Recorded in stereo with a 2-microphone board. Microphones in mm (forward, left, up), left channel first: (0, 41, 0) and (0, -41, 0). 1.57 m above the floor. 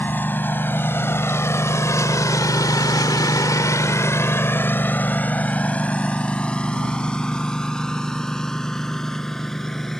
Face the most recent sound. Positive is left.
turn(degrees=5)  # may be behind; listen again after turning